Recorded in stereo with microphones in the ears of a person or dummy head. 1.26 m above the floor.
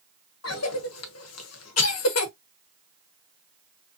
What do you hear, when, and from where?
0.4 s a cough: 80° left, 1.0 m